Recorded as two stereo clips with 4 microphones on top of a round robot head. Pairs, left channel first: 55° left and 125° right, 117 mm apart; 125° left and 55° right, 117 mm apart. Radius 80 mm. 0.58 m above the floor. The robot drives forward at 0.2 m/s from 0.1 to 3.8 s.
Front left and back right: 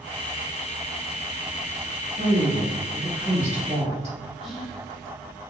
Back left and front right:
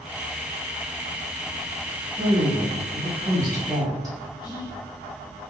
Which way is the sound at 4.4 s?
140° left.